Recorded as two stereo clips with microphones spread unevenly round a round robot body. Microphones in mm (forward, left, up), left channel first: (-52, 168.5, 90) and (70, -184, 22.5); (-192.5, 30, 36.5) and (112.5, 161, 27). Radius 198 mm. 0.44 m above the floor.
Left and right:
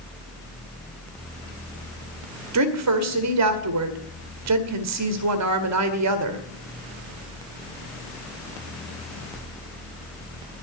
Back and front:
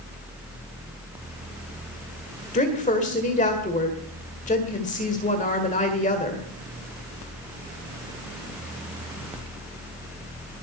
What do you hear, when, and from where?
2.5 s a woman speaking: 90° right, 1.8 m